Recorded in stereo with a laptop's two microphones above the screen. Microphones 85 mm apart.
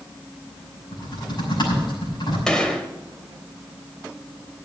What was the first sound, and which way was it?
Typing on a keyboard, 55° left (ahead or behind).